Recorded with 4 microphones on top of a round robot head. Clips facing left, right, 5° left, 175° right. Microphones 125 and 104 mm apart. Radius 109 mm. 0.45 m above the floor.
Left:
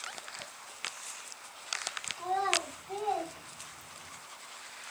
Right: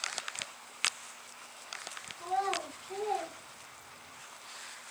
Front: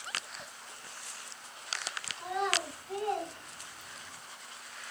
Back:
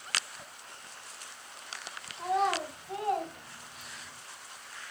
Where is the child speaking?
140° left, 2.5 m; by 4.2 s 110° left, 2.5 m.